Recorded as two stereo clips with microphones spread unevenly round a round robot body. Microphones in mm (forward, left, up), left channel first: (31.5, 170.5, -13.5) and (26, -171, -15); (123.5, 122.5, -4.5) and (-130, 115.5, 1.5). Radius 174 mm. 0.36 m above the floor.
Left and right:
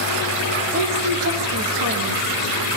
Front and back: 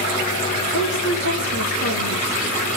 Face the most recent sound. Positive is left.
turn(degrees=-45)